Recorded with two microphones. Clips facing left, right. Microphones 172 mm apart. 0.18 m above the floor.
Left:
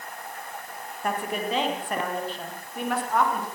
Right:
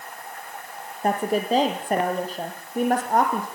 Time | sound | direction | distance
1.0 | a woman speaking | 35° right (ahead or behind) | 7 m